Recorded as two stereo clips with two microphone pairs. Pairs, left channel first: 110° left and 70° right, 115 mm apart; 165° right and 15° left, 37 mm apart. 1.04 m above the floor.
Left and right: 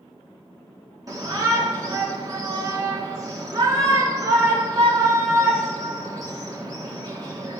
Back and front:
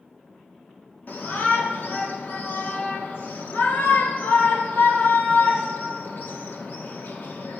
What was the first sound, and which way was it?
A shout, 130° right.